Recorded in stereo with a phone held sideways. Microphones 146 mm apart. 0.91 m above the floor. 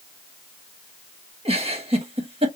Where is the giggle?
40° right (ahead or behind), 1.5 m.